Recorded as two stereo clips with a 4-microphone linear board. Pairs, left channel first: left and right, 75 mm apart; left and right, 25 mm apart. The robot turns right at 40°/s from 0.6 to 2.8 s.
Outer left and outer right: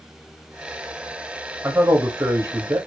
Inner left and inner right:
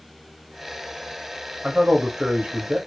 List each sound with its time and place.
1.6 s a man speaking: 125° right, 0.7 m; by 2.8 s 80° right, 0.7 m